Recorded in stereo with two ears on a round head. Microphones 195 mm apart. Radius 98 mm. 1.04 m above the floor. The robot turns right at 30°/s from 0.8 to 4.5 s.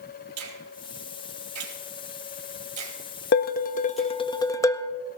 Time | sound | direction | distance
0.4 | a finger snap | 85° right | 4 m
3.3 | dishes clattering | 130° left | 0.7 m